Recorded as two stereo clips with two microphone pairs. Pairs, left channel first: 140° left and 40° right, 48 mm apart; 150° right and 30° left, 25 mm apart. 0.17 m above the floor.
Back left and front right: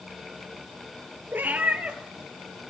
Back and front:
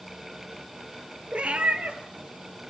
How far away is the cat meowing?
About 1.1 m.